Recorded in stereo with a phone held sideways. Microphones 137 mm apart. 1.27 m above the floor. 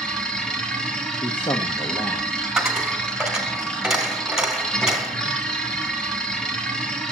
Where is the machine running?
5° left (ahead or behind), 3 m.